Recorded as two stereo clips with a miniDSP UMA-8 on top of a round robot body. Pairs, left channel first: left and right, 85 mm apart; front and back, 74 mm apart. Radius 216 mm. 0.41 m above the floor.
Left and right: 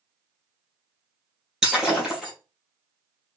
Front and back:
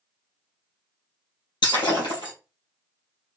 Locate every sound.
1.6 s breaking glass: 5° right, 2.5 m